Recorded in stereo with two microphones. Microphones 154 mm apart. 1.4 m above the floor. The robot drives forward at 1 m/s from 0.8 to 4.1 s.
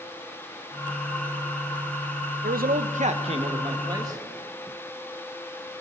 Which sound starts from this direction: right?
A man speaking, at 2.4 s.